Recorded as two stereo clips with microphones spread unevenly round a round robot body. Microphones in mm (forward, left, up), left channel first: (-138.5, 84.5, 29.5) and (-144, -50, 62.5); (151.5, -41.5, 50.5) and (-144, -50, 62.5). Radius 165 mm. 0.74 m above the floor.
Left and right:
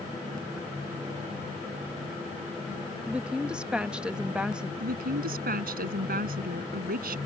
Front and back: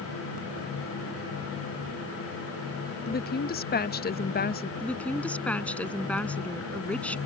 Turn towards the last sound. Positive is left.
turn(degrees=-85)